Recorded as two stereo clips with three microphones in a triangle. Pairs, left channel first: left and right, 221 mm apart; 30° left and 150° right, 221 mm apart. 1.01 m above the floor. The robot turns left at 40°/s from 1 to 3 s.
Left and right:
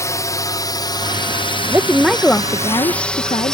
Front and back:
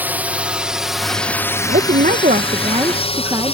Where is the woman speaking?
165° right; by 3.5 s 145° left.